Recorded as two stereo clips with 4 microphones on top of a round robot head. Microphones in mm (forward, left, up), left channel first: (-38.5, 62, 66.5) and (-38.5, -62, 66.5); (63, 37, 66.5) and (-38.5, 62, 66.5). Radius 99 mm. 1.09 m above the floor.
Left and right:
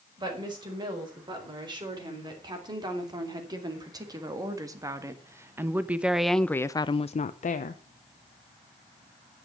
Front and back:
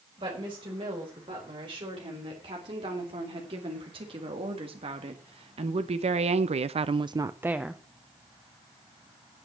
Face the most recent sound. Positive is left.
turn(degrees=80)